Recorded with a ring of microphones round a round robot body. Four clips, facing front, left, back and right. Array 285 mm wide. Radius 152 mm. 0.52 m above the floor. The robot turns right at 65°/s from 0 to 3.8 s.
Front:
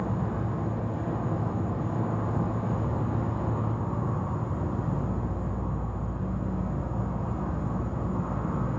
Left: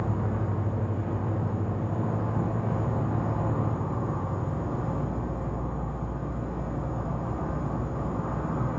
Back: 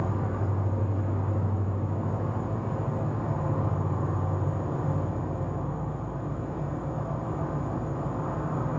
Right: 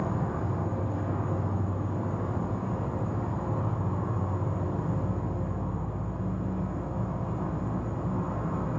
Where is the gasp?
No gasp in this recording.